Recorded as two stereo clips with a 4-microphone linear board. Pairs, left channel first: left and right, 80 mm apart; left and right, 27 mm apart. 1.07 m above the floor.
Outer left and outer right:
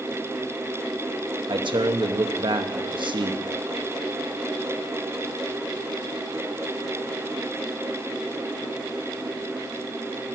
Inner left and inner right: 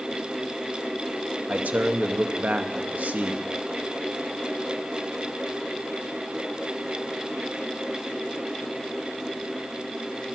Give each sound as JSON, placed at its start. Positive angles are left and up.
{"t": 1.5, "sound": "a man speaking", "side_deg": -80, "distance_m": 1.0}